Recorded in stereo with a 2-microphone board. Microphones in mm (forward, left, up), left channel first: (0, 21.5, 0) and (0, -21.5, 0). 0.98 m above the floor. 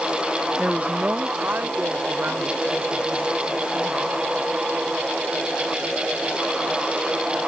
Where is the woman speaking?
25° right (ahead or behind); by 4.2 s 70° right (ahead or behind).